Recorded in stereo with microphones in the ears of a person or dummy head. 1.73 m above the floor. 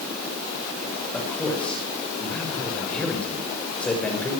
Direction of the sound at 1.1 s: 5° left (ahead or behind).